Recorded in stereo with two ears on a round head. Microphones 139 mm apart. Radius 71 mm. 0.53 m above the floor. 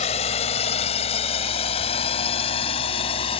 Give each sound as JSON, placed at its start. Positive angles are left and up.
{"t": 0.0, "sound": "a drone", "side_deg": 40}